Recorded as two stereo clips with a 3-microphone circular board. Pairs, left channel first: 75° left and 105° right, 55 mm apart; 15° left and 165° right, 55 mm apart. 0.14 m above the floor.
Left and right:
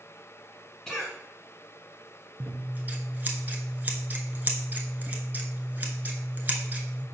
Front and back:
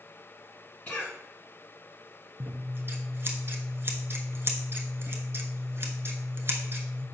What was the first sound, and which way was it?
A cough, straight ahead.